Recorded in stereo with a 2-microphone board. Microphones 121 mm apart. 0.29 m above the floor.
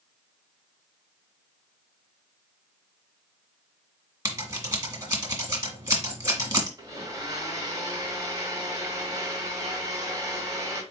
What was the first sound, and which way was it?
Scissors, 30° right (ahead or behind).